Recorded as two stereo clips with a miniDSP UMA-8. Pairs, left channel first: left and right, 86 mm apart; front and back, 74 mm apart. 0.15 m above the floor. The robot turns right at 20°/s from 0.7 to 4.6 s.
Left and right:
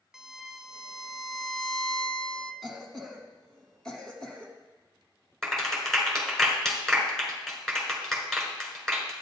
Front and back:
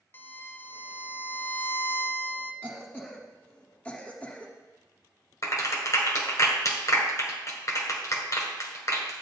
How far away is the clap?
About 1.7 m.